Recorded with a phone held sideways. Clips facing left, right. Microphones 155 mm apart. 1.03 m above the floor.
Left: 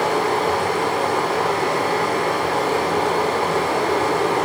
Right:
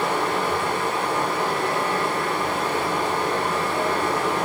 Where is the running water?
65° left (ahead or behind), 2.0 m.